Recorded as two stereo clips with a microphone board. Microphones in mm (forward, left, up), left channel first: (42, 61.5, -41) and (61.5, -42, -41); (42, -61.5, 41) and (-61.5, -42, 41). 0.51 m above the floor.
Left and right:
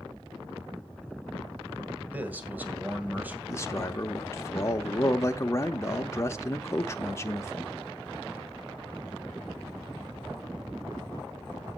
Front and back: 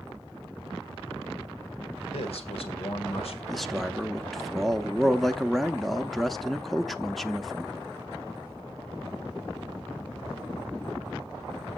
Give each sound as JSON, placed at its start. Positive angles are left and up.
{"t": 2.1, "sound": "a man speaking", "azimuth_deg": -5, "distance_m": 2.0}
{"t": 3.5, "sound": "a man speaking", "azimuth_deg": 75, "distance_m": 0.8}